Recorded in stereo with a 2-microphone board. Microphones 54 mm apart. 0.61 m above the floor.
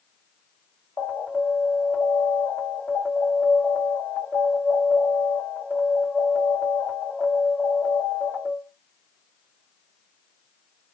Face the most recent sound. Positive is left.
turn(degrees=30)  # may be behind; listen again after turning